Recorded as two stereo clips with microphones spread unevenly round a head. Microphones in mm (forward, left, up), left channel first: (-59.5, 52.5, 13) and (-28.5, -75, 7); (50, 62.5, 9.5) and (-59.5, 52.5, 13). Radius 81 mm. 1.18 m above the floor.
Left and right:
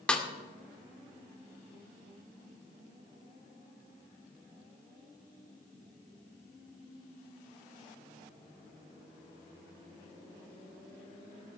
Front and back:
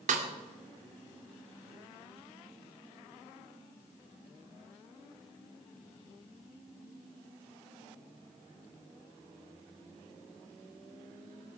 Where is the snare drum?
175° right, 2 m.